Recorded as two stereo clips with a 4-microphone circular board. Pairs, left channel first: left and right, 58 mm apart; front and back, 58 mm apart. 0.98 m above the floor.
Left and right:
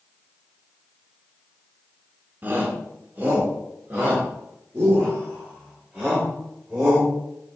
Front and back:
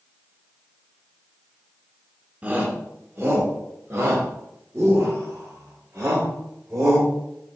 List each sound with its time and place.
2.4 s a shout: 130° right, 1.1 m; by 7.1 s 155° right, 4 m